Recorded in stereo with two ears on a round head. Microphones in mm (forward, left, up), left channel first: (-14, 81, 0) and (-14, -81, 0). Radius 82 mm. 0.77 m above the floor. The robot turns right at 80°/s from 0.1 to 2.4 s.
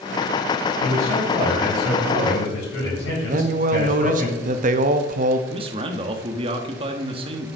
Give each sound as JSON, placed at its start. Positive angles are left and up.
{"t": 0.8, "sound": "a man speaking", "azimuth_deg": -35, "distance_m": 4.5}
{"t": 3.3, "sound": "a man speaking", "side_deg": -45, "distance_m": 0.6}
{"t": 5.5, "sound": "a man speaking", "side_deg": -30, "distance_m": 1.0}